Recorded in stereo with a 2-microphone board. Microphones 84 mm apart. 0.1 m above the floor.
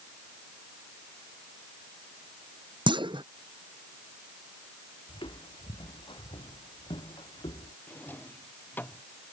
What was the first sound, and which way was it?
A clunk, 75° right (ahead or behind).